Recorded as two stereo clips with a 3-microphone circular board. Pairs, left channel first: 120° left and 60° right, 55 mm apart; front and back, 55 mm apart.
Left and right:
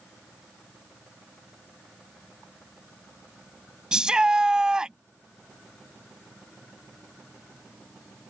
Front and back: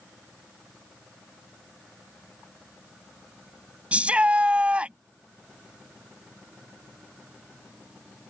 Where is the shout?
130° right.